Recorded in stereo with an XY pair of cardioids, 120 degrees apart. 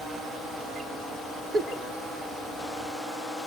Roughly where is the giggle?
Ahead right.